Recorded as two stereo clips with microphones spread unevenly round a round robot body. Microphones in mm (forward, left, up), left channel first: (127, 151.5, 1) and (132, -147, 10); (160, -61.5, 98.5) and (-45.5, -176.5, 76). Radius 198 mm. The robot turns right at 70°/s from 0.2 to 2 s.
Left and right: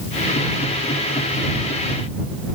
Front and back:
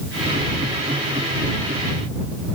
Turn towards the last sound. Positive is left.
No sound to turn to.